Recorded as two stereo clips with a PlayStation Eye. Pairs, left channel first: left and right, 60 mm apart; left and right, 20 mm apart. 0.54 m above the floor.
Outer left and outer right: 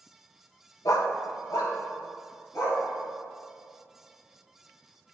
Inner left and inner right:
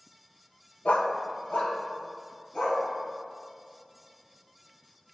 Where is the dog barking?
85° left, 0.5 m; by 2.8 s 75° left (ahead or behind), 2.5 m.